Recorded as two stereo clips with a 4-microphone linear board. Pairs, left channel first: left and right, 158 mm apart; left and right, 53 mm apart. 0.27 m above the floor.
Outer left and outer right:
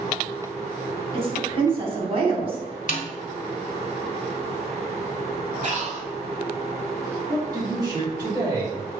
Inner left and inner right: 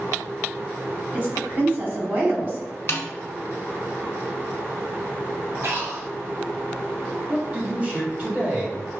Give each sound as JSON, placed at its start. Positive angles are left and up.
{"t": 1.1, "sound": "a woman speaking", "side_deg": -35, "distance_m": 1.6}
{"t": 2.9, "sound": "a snare drum", "side_deg": 50, "distance_m": 0.9}
{"t": 5.6, "sound": "breathing", "side_deg": -50, "distance_m": 1.0}
{"t": 7.3, "sound": "a man speaking", "side_deg": -25, "distance_m": 1.2}